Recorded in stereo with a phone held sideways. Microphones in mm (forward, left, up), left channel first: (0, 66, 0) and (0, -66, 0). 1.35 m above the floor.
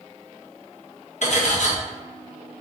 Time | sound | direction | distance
1.2 | cutlery clinking | 60° left (ahead or behind) | 0.8 m